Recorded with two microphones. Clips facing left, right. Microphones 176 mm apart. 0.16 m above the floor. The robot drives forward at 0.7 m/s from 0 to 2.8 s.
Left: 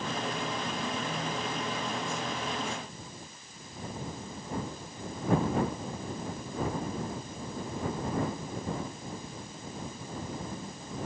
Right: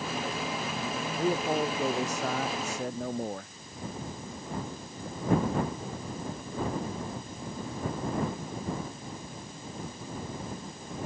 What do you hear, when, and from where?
1.2 s a man speaking: 80° right